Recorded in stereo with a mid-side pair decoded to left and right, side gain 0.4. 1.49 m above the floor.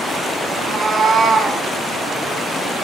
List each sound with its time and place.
0.5 s a cat meowing: 65° right, 5 m